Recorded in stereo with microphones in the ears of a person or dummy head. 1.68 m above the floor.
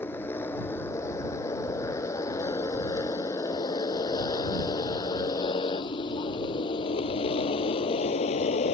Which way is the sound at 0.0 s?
15° left (ahead or behind).